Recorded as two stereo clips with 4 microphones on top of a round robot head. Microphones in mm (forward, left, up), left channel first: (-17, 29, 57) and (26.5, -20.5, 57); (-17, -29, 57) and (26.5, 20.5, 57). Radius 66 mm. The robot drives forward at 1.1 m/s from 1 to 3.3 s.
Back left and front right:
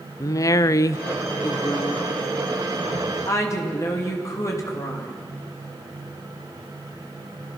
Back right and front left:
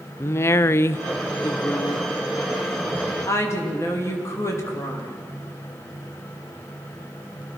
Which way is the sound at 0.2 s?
175° left.